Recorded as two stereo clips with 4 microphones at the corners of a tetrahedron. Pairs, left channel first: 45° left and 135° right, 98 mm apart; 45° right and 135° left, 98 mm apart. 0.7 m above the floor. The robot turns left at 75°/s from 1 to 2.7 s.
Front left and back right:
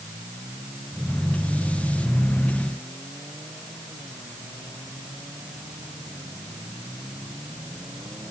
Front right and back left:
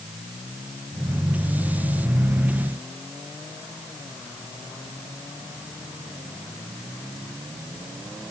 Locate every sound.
Only background noise.